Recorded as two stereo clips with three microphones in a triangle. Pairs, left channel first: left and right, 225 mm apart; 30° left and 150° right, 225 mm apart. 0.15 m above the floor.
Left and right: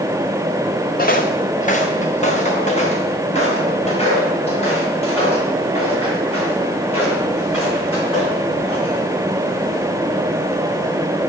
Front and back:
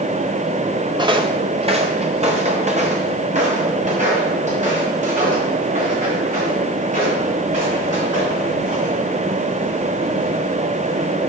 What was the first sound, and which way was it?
Footsteps, 140° left.